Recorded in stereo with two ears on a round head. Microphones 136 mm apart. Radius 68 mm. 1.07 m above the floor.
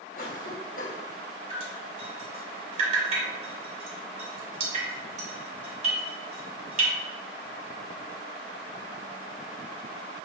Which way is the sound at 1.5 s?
45° right (ahead or behind).